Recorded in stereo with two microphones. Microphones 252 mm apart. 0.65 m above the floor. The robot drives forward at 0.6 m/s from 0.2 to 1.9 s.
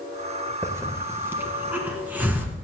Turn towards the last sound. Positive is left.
turn(degrees=-5)  # may be behind; listen again after turning